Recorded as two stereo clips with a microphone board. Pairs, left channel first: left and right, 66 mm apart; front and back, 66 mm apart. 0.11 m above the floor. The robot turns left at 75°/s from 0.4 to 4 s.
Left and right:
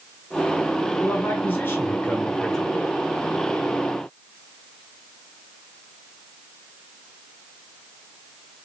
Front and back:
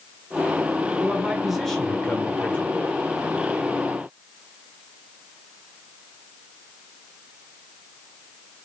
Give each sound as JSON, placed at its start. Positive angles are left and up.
{"t": 1.0, "sound": "a man speaking", "azimuth_deg": 130, "distance_m": 1.4}